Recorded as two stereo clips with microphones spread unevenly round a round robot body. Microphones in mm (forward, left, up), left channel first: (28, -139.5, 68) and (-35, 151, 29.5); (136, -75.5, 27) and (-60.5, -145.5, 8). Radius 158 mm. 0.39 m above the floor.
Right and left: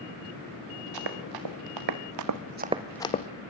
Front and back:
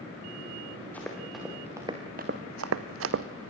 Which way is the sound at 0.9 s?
105° left.